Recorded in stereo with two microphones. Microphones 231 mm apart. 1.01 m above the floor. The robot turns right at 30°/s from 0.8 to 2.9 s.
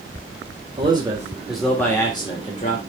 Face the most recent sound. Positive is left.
turn(degrees=40)